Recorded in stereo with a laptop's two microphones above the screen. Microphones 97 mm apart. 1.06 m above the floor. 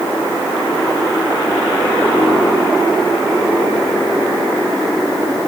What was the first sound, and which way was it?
Only background noise.